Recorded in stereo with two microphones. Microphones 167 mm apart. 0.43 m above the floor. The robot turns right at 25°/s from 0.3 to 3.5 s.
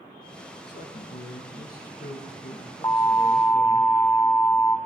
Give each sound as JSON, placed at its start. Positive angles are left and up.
{"t": 0.7, "sound": "a man speaking", "azimuth_deg": 95, "distance_m": 5.5}
{"t": 2.8, "sound": "an alarm", "side_deg": 20, "distance_m": 1.2}